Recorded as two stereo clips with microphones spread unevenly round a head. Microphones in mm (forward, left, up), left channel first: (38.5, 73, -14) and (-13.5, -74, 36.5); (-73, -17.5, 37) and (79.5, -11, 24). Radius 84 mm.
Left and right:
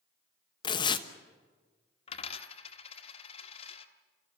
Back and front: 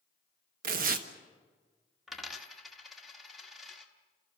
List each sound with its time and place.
0.6 s tearing paper: straight ahead, 1.1 m
2.1 s a dropped coin: 105° left, 1.3 m